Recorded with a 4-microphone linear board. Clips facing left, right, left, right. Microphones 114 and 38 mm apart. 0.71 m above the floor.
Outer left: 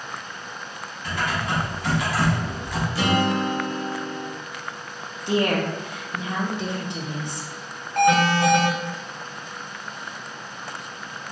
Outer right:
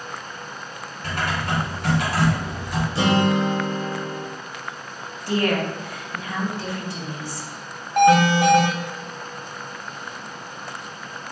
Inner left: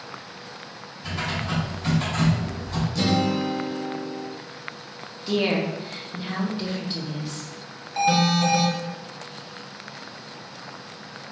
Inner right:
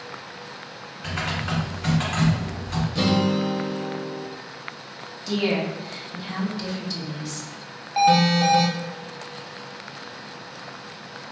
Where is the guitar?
25° right (ahead or behind), 0.7 m.